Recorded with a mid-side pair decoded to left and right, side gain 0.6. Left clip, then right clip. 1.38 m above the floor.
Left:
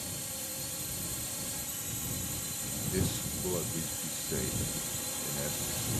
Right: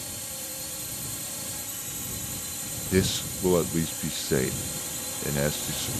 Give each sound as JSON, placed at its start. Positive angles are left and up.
{"t": 0.0, "sound": "a drone", "azimuth_deg": -15}
{"t": 2.9, "sound": "a man speaking", "azimuth_deg": -55}